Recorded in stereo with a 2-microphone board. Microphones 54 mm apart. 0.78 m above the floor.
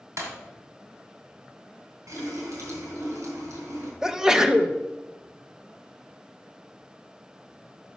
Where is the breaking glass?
75° right (ahead or behind), 2.0 m.